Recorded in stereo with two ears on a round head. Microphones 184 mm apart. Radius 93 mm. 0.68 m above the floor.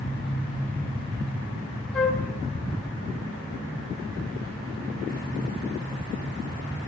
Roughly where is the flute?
Centre.